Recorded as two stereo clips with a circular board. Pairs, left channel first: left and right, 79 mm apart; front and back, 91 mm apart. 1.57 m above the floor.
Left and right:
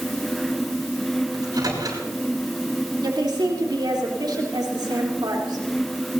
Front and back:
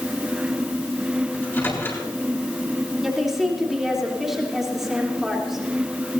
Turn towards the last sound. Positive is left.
turn(degrees=-95)